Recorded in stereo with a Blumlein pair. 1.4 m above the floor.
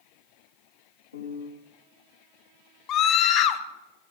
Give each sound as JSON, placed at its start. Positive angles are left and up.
{"t": 1.1, "sound": "a piano", "azimuth_deg": 70, "distance_m": 1.9}
{"t": 2.9, "sound": "a scream", "azimuth_deg": 35, "distance_m": 1.4}